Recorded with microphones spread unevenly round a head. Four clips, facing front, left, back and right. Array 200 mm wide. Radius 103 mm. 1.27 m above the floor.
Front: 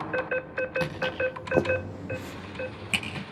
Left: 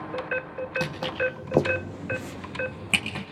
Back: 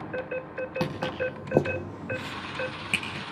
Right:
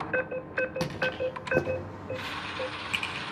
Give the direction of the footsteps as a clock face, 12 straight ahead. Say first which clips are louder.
Left 2 dB, back 2 dB; 6 o'clock.